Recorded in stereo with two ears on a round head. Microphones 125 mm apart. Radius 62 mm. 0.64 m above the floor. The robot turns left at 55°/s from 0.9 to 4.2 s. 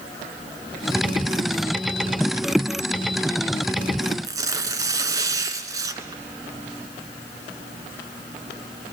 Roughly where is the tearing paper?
Right.